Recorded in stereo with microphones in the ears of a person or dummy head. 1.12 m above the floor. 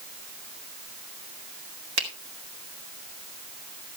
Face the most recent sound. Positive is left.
turn(degrees=-75)  # may be behind; listen again after turning